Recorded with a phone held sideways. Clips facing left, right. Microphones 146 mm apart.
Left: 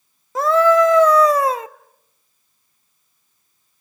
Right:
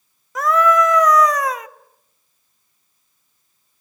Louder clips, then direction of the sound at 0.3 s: Left 3 dB; 30° left (ahead or behind).